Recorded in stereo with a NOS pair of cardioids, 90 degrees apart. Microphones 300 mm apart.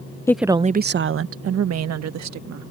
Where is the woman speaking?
10° left; by 2.7 s 65° right.